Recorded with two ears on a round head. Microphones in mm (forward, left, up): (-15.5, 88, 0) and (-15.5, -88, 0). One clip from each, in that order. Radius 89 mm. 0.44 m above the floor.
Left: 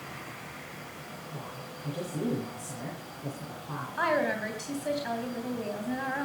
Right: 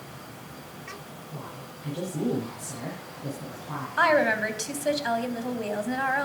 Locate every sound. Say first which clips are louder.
1.3 s a woman speaking: right 2 dB; 5° left (ahead or behind), 9.5 m
4.0 s a woman speaking: right 6 dB; 40° right (ahead or behind), 3 m